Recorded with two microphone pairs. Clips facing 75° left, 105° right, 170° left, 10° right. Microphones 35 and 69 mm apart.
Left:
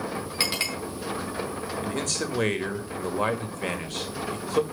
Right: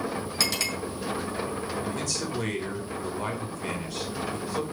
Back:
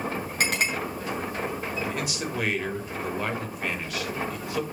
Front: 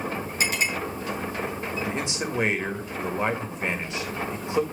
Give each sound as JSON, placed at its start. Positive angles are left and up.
{"t": 0.4, "sound": "a clink", "azimuth_deg": 140, "distance_m": 4.5}
{"t": 1.8, "sound": "a man speaking", "azimuth_deg": 55, "distance_m": 2.0}